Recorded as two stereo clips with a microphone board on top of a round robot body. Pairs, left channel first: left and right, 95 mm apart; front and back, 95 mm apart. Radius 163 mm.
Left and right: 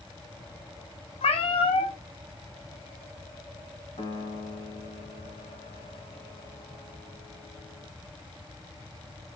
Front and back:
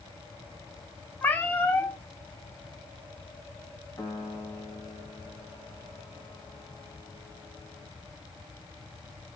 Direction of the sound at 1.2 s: 70° left.